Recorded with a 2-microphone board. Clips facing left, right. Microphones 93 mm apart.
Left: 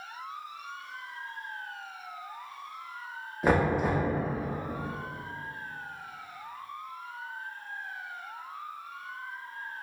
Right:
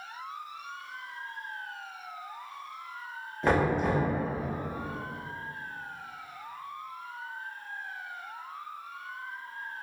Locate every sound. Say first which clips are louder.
3.4 s knocking: even; 10° left (ahead or behind), 0.5 m